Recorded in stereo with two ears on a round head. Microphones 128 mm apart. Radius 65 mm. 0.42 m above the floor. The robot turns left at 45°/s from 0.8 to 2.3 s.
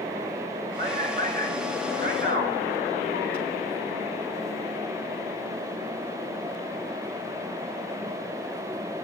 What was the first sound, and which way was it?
A man speaking, 35° right (ahead or behind).